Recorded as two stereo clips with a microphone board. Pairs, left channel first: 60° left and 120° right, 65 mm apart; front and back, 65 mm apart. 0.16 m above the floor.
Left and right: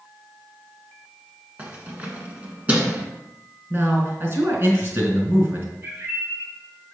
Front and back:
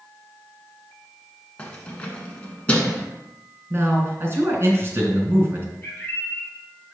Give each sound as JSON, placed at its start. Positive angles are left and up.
{"t": 1.6, "sound": "keys jangling", "azimuth_deg": -65, "distance_m": 1.3}
{"t": 3.7, "sound": "a man speaking", "azimuth_deg": -155, "distance_m": 1.9}
{"t": 5.8, "sound": "a bird", "azimuth_deg": -70, "distance_m": 3.5}